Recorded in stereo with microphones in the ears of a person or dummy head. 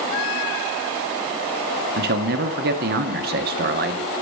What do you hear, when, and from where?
2.0 s a man speaking: 45° right (ahead or behind), 0.9 m